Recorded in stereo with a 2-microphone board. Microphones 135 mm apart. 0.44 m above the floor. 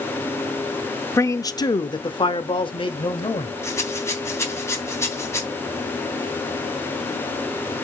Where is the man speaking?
20° left (ahead or behind), 0.8 m; by 3.5 s 40° left (ahead or behind), 1.6 m.